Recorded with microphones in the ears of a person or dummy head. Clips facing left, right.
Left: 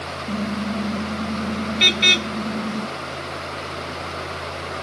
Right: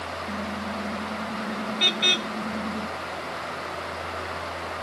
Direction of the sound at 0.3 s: 45° left (ahead or behind).